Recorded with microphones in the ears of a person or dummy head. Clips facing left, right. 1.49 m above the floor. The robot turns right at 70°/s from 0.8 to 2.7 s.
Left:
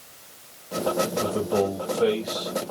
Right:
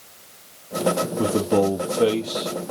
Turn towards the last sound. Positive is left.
turn(degrees=-15)